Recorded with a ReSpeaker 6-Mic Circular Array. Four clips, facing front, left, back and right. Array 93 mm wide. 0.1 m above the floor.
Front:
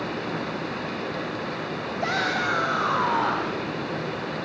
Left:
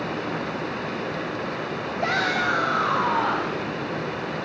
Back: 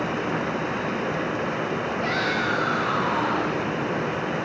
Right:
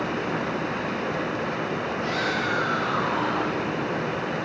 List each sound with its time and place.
2.0 s a shout: 55° left, 4.5 m; by 3.6 s 30° left, 5 m